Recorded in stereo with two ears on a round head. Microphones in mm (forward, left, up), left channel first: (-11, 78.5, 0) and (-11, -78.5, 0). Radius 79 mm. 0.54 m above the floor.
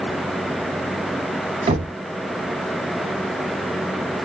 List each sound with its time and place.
1.7 s knocking: 30° right (ahead or behind), 0.7 m